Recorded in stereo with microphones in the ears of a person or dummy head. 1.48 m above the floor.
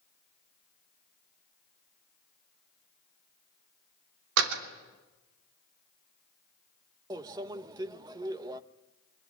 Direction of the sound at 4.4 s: 75° right (ahead or behind).